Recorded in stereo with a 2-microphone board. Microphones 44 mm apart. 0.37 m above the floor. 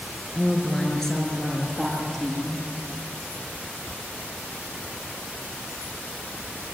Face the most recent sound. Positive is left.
turn(degrees=5)  # may be behind; listen again after turning